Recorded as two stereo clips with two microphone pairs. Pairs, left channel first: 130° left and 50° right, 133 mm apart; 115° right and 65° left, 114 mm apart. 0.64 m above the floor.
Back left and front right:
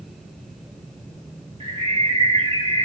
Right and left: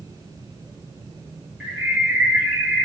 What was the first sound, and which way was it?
A bird, 10° right.